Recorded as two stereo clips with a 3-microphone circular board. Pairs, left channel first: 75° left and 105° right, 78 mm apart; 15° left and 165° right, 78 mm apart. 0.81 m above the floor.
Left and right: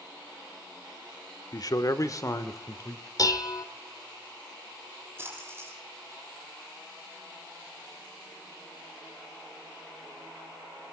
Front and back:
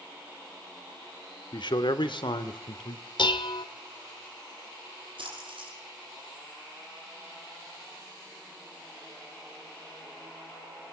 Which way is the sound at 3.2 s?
30° left.